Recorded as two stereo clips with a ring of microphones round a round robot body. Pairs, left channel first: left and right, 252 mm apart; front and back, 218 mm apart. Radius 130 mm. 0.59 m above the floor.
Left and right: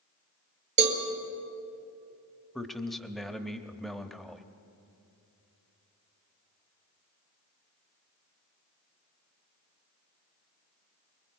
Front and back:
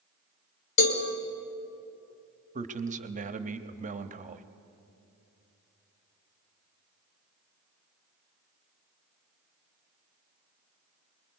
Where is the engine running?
No engine running in this recording.